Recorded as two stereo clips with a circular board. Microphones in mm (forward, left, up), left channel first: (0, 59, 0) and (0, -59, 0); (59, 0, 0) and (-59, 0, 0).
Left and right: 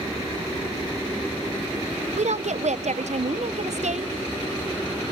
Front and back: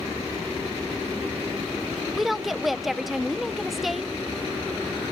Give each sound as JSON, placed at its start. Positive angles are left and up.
{"t": 2.1, "sound": "a woman speaking", "azimuth_deg": -90, "distance_m": 0.7}